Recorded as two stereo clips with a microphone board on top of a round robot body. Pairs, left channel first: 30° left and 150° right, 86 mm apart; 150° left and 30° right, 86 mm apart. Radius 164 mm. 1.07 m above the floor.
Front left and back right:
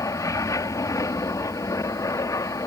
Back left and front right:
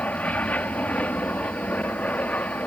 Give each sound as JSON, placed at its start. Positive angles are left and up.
{"t": 0.0, "sound": "an aircraft", "azimuth_deg": 80}